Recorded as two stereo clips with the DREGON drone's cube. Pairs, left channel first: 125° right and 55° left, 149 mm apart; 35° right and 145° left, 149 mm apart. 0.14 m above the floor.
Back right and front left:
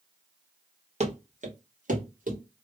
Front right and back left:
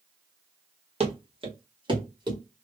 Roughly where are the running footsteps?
Left.